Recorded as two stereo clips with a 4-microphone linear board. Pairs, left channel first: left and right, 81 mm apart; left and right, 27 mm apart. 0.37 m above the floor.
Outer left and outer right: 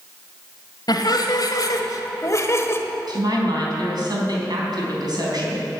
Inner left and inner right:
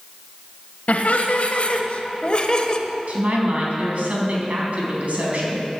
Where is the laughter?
60° left (ahead or behind), 1.6 m; by 2.8 s 30° left (ahead or behind), 1.2 m.